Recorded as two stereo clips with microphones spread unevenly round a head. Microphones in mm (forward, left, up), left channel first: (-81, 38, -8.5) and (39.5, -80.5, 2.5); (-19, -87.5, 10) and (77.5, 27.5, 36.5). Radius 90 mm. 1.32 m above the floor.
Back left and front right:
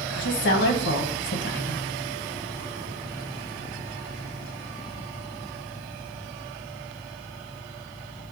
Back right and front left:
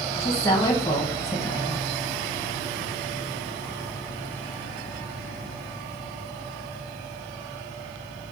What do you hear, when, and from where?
0.1 s a woman speaking: 155° left, 0.8 m